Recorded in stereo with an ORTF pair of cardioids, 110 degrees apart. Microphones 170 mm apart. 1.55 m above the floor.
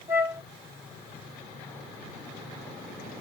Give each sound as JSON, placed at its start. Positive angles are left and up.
{"t": 0.1, "sound": "a flute", "azimuth_deg": -15, "distance_m": 2.5}